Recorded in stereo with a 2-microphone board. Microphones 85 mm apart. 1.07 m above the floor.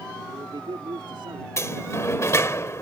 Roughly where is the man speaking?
Right.